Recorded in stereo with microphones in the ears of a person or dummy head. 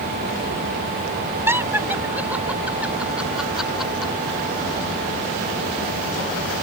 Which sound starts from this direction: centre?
Laughter, at 1.5 s.